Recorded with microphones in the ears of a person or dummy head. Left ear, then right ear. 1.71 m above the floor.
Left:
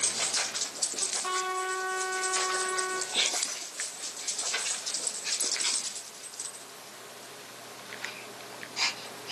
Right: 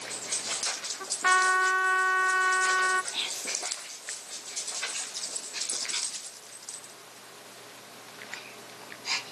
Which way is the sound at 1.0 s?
65° right (ahead or behind).